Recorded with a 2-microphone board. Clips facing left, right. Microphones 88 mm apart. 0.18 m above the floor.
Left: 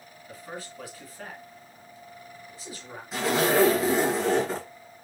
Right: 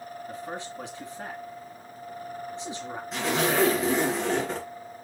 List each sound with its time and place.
0.3 s a man speaking: 25° right (ahead or behind), 2.5 m
3.1 s a zipper: 5° left (ahead or behind), 2.5 m